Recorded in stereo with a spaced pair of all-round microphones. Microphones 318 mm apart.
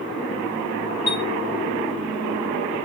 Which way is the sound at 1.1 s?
50° left (ahead or behind).